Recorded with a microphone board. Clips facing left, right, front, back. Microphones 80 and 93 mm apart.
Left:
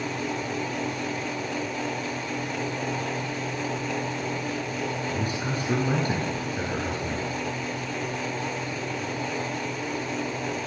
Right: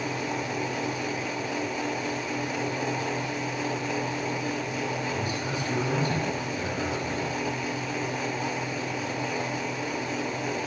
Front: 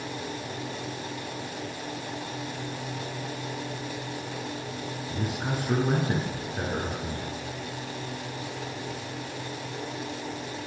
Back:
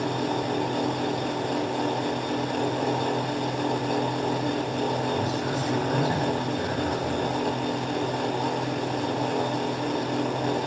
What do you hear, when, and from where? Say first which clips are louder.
5.1 s a man speaking: left 1 dB, back 5 dB; 40° left, 9 m